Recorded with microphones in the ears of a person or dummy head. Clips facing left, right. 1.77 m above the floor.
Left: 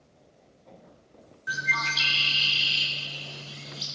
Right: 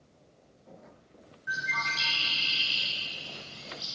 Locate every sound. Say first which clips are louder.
1.5 s a bird: left 3 dB; 55° left (ahead or behind), 0.6 m